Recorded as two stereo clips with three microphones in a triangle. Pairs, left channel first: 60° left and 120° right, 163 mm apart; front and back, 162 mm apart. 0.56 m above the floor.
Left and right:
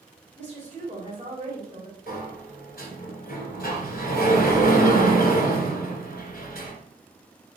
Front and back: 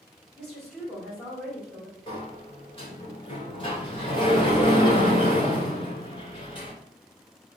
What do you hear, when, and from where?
0.4 s a woman speaking: 90° right, 1.7 m
2.1 s a sliding door: 55° left, 1.3 m